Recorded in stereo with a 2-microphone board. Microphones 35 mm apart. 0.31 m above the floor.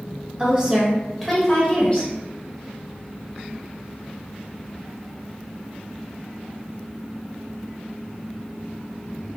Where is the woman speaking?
35° right (ahead or behind), 1.6 m; by 2.1 s 40° left (ahead or behind), 1.7 m.